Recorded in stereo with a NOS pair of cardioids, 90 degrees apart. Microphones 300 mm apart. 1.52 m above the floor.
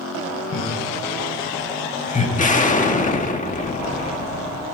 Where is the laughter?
45° left, 5 m; by 2.3 s 25° left, 5.5 m.